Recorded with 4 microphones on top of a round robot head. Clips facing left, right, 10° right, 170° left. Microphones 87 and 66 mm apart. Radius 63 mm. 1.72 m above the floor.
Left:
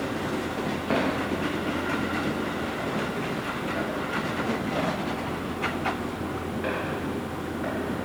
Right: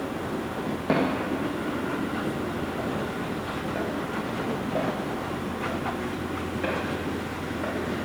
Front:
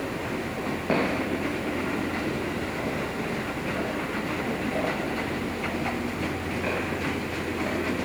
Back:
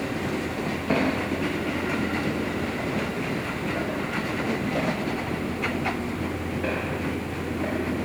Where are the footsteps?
75° right, 4.5 m; by 7.7 s 100° right, 10 m.